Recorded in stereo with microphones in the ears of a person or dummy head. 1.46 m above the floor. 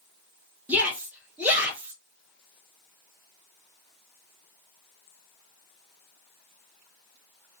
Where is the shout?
Centre (ahead or behind), 0.9 m.